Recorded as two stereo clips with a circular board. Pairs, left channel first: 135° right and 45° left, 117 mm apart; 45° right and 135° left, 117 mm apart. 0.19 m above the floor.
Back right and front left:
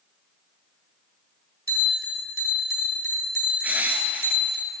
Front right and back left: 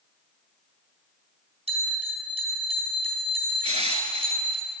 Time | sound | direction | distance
1.7 | a bell | 110° left | 2.5 m
3.6 | crushing | 120° left | 0.8 m